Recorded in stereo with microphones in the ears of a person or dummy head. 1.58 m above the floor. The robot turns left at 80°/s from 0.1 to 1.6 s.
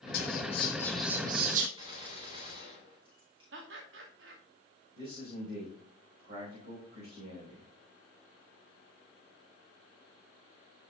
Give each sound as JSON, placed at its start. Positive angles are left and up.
{"t": 0.1, "sound": "whispering", "azimuth_deg": 70, "distance_m": 1.5}
{"t": 1.8, "sound": "a gunshot", "side_deg": -30, "distance_m": 5.5}
{"t": 3.5, "sound": "laughter", "side_deg": -75, "distance_m": 2.5}
{"t": 4.9, "sound": "a man speaking", "side_deg": -55, "distance_m": 5.0}